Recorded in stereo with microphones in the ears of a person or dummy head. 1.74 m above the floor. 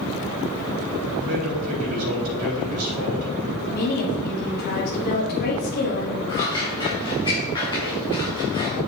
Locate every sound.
1.2 s a man speaking: 80° right, 3.5 m
3.7 s a woman speaking: 50° left (ahead or behind), 1.5 m
6.3 s scissors: 20° left (ahead or behind), 2.5 m